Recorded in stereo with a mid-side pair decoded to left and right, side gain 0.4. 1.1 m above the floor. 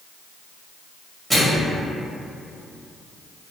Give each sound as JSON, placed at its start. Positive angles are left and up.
{"t": 1.3, "sound": "a microwave", "azimuth_deg": -20, "distance_m": 1.8}